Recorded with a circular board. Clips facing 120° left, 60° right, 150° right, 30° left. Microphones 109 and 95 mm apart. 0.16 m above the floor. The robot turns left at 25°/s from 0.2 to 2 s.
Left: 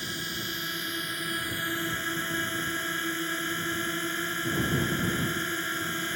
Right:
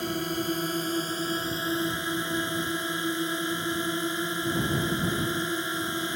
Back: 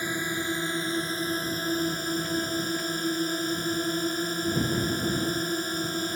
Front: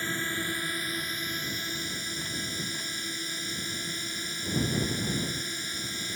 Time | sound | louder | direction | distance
0.0 | a drone | right 8 dB, back 3 dB | 80° right | ?